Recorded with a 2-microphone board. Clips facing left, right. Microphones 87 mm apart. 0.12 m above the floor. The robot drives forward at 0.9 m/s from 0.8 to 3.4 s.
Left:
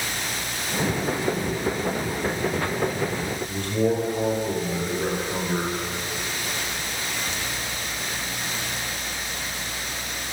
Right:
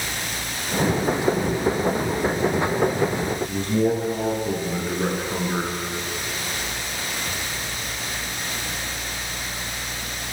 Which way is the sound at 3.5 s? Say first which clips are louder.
Right 1 dB; 25° right (ahead or behind).